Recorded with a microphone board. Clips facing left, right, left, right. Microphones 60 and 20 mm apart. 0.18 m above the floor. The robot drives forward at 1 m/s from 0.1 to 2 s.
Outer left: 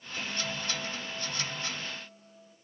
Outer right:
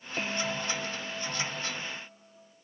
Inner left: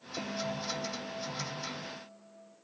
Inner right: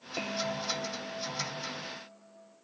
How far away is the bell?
About 0.7 m.